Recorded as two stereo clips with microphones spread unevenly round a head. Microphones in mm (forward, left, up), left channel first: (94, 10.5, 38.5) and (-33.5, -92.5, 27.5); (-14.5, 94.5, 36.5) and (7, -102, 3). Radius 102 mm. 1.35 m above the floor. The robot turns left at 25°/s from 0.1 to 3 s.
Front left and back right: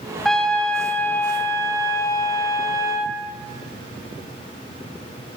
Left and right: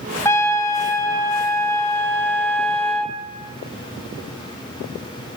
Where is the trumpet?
115° left, 1.2 m; by 3.2 s 45° left, 1.2 m.